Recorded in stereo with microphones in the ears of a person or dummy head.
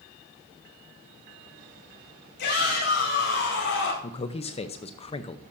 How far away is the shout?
About 5.5 m.